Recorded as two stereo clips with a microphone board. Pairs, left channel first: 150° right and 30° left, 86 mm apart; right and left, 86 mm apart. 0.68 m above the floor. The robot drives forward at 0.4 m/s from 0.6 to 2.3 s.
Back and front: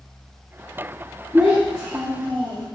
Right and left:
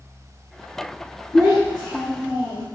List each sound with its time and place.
1.3 s a child speaking: 55° right, 1.7 m; by 2.7 s 65° right, 1.5 m